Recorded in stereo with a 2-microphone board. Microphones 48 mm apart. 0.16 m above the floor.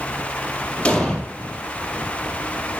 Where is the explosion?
15° left (ahead or behind), 4 m.